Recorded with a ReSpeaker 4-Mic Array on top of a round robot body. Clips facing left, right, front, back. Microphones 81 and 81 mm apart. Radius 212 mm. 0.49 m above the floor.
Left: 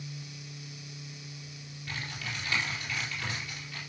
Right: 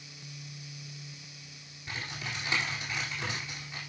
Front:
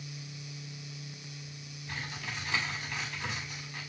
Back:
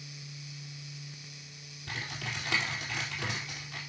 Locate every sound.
1.9 s typing on a keyboard: 155° right, 4 m